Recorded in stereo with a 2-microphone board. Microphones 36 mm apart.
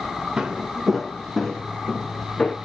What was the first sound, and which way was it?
Footsteps, 25° right (ahead or behind).